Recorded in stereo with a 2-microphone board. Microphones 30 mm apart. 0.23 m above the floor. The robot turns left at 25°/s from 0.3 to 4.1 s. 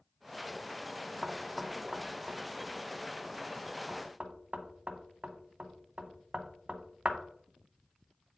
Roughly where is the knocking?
Centre.